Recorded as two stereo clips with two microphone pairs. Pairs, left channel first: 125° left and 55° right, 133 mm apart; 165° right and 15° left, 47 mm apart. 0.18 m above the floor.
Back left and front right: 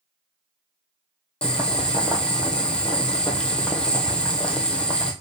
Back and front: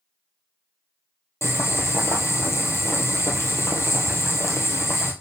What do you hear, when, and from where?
1.4 s boiling: 150° right, 1.5 m